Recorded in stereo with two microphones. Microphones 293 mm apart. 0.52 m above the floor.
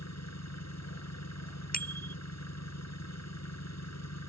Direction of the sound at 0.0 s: 65° left (ahead or behind).